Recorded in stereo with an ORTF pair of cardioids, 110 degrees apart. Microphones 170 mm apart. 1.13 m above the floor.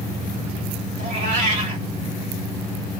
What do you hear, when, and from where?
1.0 s a cat meowing: 40° right, 2.5 m